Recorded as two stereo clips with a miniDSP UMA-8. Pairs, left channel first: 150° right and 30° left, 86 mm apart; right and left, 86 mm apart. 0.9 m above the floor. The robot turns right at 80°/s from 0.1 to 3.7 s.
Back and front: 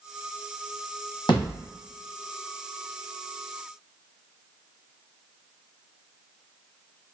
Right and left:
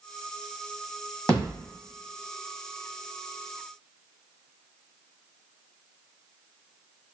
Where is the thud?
165° right, 1.6 m; by 1.6 s 135° right, 1.6 m.